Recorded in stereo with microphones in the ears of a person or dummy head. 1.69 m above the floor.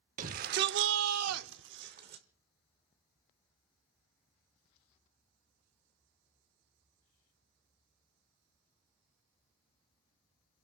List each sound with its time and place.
0.2 s a shout: 45° right (ahead or behind), 1.1 m